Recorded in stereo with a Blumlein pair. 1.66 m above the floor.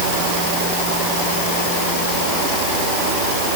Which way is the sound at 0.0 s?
50° right.